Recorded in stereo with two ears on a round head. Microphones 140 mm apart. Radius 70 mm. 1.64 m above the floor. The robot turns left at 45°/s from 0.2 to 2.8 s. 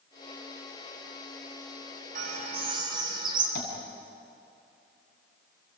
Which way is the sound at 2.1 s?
60° right (ahead or behind).